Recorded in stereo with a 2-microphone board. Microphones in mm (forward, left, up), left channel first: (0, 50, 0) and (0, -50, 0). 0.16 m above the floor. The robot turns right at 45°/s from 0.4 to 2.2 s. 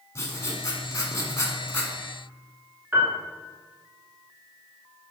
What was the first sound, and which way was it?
Writing, 65° left.